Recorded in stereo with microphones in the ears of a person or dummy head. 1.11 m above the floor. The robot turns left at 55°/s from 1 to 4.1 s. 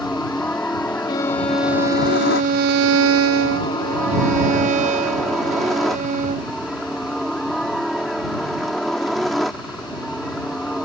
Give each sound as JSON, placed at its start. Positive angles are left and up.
{"t": 0.0, "sound": "a helicopter", "azimuth_deg": 170}
{"t": 1.1, "sound": "a violin", "azimuth_deg": 25}